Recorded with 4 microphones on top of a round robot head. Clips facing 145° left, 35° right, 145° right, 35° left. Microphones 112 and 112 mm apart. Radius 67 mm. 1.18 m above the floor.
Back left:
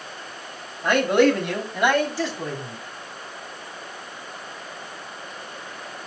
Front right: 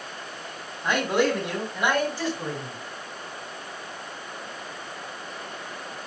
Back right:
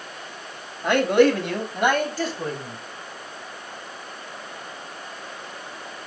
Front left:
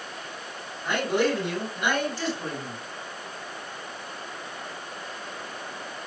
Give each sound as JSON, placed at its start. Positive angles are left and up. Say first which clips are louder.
{"t": 0.8, "sound": "a man speaking", "louder": "back left 5 dB, back right 7 dB", "azimuth_deg": -175, "distance_m": 3.0}